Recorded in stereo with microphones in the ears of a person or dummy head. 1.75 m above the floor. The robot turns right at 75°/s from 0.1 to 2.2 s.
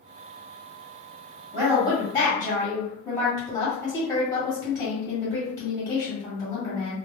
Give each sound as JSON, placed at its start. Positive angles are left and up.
{"t": 1.5, "sound": "a woman speaking", "azimuth_deg": -25, "distance_m": 1.9}